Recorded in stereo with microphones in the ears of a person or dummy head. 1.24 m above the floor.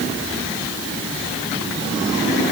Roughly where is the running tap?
No running tap in this recording.